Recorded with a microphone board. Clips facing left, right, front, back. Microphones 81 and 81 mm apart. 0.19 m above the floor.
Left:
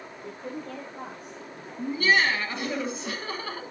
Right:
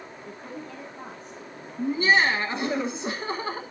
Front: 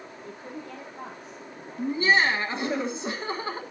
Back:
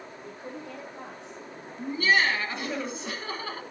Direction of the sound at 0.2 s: 105° left.